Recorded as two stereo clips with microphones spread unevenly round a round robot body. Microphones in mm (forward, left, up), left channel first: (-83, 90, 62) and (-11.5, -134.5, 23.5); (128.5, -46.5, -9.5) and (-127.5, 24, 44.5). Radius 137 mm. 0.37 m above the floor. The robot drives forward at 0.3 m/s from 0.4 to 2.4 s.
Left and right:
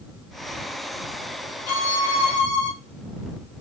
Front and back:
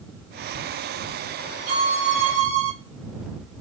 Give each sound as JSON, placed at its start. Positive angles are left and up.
{"t": 1.7, "sound": "a violin", "azimuth_deg": 110, "distance_m": 0.8}